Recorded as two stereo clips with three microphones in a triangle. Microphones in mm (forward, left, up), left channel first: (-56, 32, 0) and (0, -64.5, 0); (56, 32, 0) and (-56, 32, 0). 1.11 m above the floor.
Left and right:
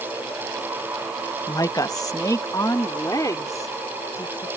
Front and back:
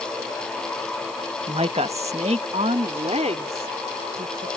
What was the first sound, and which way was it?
A woman speaking, 170° left.